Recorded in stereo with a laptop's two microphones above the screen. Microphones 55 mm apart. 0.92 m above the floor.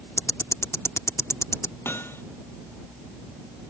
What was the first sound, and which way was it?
Ticking, 60° left (ahead or behind).